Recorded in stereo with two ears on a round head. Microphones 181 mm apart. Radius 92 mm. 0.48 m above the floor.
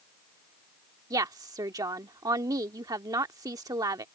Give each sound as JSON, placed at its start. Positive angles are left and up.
{"t": 1.1, "sound": "a woman speaking", "side_deg": -20}